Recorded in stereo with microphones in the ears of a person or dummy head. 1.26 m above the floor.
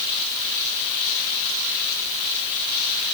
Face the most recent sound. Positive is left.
No sound to turn to.